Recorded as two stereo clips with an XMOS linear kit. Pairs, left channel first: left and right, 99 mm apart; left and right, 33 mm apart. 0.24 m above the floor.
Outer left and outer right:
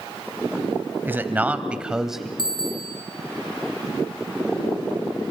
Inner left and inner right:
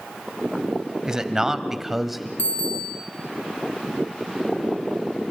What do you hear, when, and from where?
1.1 s a man speaking: 20° right (ahead or behind), 1.1 m; by 2.3 s centre (ahead or behind), 1.1 m
2.4 s a bicycle bell: 50° left (ahead or behind), 4.5 m